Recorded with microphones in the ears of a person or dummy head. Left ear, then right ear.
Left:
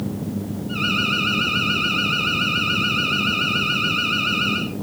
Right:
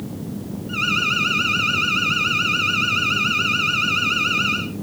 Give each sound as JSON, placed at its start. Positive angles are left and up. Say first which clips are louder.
{"t": 0.7, "sound": "an alarm", "louder": "right 1 dB", "side_deg": -30, "distance_m": 3.5}